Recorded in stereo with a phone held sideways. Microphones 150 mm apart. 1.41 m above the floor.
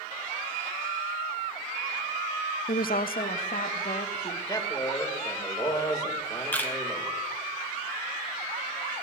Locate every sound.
2.7 s a woman speaking: 70° left (ahead or behind), 0.6 m
4.5 s a man speaking: 25° left (ahead or behind), 2.5 m
6.5 s a camera shutter: 10° left (ahead or behind), 1.4 m